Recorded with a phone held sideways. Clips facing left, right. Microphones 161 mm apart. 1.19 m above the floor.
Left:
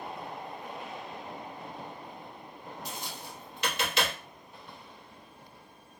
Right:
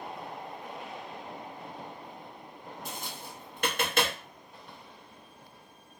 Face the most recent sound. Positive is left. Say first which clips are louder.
# right 1 dB
turn(degrees=-50)  # may be behind; listen again after turning